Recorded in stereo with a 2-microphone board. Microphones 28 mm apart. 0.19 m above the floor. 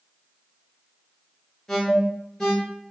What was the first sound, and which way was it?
An alarm, 20° left (ahead or behind).